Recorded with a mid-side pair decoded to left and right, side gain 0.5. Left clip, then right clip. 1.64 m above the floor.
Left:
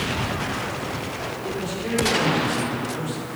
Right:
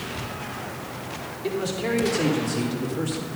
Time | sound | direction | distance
1.4 | a man speaking | 55° right | 5 m